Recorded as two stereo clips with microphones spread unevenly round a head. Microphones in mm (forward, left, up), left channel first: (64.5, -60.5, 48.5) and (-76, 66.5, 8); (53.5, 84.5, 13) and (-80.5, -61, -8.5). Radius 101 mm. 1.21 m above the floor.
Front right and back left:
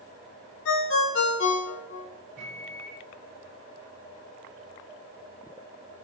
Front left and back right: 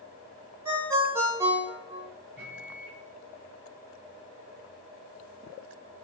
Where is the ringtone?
50° right, 0.7 m.